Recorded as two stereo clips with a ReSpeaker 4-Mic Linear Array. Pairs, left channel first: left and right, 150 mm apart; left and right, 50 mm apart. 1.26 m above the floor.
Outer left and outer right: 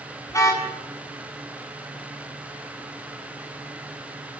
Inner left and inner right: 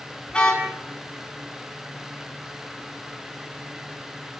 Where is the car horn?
20° left (ahead or behind), 7 m.